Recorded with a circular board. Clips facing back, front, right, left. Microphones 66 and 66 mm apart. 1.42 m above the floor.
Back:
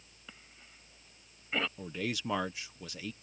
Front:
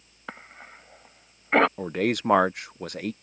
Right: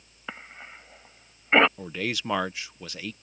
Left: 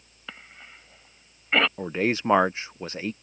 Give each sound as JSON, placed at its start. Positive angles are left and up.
{"t": 0.3, "sound": "a cough", "azimuth_deg": -25}
{"t": 1.8, "sound": "a man speaking", "azimuth_deg": 30}